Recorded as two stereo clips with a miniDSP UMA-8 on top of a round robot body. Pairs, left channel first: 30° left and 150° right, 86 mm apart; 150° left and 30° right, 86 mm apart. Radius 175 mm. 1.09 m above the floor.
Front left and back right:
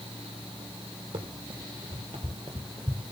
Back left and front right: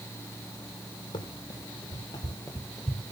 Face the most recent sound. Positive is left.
turn(degrees=-60)